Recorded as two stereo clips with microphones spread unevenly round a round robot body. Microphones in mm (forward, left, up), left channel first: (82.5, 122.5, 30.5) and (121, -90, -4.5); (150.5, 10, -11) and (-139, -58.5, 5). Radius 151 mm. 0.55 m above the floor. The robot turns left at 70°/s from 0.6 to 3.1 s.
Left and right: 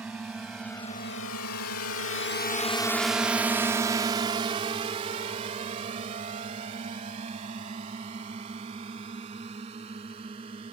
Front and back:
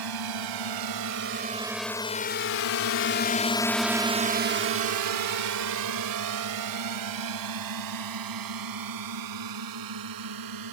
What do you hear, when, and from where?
0.0 s a drone: 165° right; by 10.7 s 150° right